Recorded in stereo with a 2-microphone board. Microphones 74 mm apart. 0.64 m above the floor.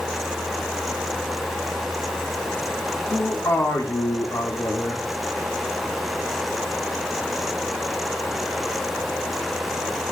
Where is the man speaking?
40° left (ahead or behind), 1.8 m.